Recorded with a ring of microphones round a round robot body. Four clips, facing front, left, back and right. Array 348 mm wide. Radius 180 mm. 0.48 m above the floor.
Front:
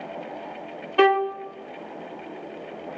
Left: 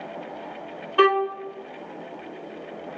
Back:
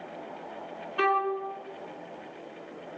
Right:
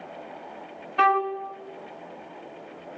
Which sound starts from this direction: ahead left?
A violin, at 1.0 s.